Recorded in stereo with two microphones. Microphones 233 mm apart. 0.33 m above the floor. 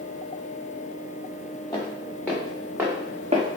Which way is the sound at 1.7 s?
20° left (ahead or behind).